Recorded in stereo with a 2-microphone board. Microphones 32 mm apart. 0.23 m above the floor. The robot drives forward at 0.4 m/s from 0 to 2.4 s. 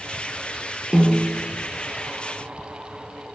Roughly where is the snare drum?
Right.